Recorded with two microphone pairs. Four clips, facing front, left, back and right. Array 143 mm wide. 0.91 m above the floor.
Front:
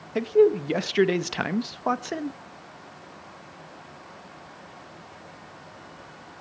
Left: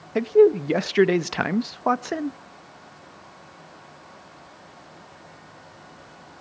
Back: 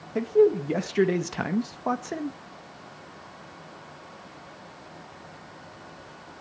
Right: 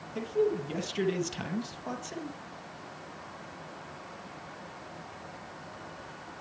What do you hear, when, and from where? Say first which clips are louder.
0.1 s a man speaking: left 13 dB, front 1 dB; 80° left, 0.6 m